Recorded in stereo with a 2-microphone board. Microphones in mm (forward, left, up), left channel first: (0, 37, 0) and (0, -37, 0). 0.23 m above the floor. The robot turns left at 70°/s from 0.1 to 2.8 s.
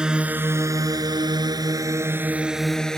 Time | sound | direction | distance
0.0 | a drone | 10° right (ahead or behind) | ?